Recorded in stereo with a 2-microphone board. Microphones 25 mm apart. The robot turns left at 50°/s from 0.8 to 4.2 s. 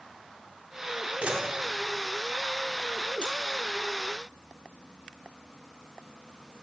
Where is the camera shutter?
65° right (ahead or behind), 3 m; by 3.3 s 10° right (ahead or behind), 3 m.